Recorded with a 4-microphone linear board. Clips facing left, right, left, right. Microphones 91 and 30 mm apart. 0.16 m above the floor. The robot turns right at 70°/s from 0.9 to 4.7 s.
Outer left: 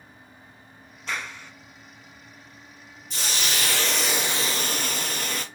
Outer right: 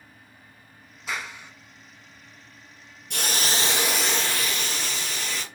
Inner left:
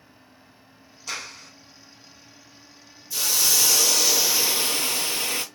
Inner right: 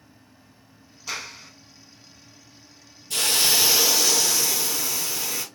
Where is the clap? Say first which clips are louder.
Even, inner right 1 dB; 10° right (ahead or behind), 0.8 m; by 1.5 s 15° right (ahead or behind), 0.8 m.